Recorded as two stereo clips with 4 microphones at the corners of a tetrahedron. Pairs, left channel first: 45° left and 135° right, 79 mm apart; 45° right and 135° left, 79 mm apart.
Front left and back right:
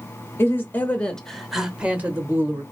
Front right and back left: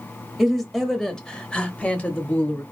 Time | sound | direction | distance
0.4 | a woman speaking | 50° left | 1.0 m